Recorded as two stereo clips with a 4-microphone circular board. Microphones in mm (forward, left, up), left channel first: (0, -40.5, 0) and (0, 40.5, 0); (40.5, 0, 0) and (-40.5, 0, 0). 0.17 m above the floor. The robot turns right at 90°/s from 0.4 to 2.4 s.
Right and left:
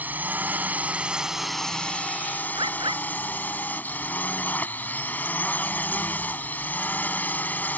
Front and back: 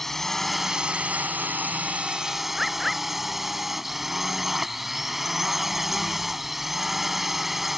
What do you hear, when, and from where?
0.0 s a drone: 80° left; by 7.8 s 100° right
2.5 s a bird: 95° left